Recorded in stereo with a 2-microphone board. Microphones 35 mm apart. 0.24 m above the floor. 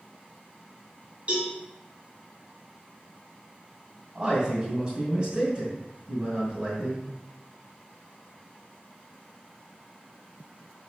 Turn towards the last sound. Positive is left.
turn(degrees=-25)  # may be behind; listen again after turning